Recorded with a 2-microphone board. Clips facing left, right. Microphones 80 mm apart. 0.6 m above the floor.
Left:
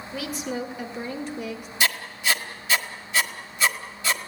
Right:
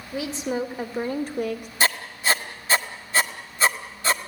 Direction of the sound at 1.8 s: 35° right (ahead or behind).